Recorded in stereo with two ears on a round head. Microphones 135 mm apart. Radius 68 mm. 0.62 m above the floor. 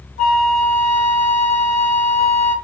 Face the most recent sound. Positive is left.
turn(degrees=45)  # may be behind; listen again after turning